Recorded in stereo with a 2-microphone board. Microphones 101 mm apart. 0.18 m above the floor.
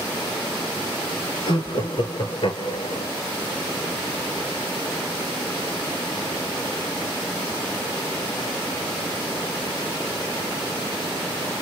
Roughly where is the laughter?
Left.